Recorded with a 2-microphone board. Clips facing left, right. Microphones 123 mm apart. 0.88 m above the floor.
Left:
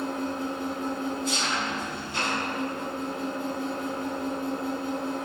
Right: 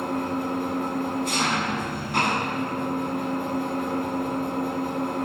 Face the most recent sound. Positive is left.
turn(degrees=-60)  # may be behind; listen again after turning